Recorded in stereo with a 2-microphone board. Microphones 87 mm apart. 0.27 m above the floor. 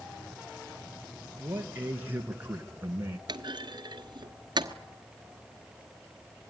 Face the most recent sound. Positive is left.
turn(degrees=-60)  # may be behind; listen again after turning